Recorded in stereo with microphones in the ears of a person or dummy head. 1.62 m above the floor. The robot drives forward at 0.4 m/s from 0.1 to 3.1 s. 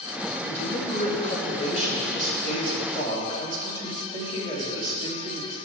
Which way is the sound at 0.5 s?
35° left (ahead or behind).